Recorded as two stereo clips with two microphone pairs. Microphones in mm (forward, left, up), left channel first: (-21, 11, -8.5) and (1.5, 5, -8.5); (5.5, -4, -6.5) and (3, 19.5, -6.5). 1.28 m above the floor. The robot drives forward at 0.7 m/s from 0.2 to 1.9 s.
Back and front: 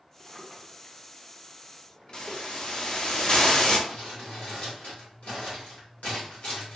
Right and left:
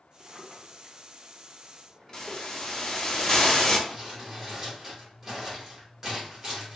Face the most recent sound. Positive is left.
turn(degrees=165)